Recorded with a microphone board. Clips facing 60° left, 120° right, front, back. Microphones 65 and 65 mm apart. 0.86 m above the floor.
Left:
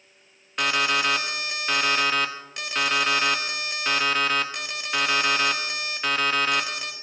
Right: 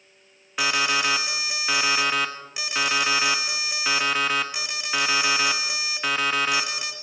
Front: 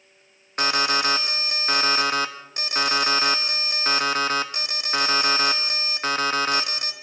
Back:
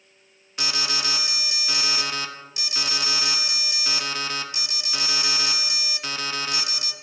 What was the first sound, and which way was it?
An alarm, 35° right.